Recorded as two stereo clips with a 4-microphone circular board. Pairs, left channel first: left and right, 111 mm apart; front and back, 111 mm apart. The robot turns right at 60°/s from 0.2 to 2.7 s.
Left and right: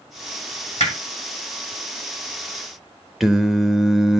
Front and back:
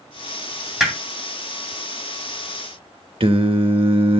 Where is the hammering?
90° left, 2.5 m; by 1.0 s 100° left, 2.5 m.